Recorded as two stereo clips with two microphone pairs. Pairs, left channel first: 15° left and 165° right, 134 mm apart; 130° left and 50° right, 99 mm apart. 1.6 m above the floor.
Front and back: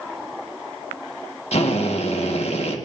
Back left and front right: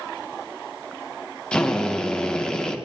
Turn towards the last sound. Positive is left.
turn(degrees=50)